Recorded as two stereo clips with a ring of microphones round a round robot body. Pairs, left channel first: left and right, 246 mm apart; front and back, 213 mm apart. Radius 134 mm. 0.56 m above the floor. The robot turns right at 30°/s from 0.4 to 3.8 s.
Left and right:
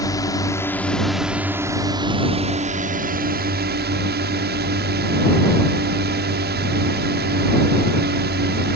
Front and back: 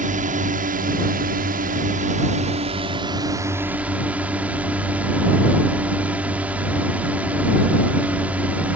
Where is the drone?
160° left; by 8.8 s 100° right.